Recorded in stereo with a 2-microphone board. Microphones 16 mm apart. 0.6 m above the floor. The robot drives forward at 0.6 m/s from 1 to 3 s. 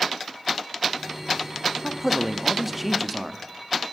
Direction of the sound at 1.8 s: 10° right (ahead or behind).